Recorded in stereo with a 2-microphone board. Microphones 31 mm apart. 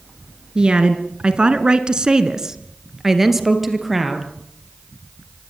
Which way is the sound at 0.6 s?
30° right (ahead or behind).